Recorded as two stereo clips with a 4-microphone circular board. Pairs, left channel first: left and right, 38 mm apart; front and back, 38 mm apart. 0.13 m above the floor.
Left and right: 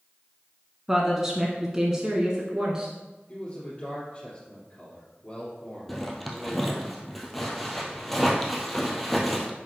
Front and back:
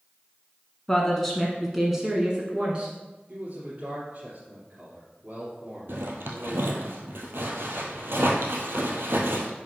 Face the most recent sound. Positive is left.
turn(degrees=175)